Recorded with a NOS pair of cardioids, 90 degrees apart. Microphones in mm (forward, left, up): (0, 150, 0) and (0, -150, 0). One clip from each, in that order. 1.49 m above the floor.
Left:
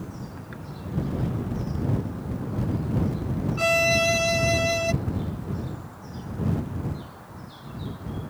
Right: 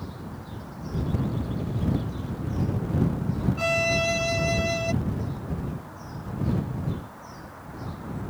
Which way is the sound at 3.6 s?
20° left.